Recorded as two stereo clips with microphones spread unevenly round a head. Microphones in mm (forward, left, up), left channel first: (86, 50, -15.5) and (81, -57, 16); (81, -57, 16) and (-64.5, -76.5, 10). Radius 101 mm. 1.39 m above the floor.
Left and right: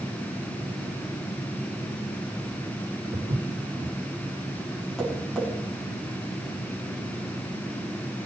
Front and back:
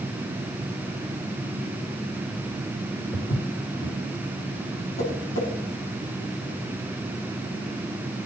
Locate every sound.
3.1 s footsteps: 55° right, 3.5 m
5.0 s tapping: straight ahead, 7 m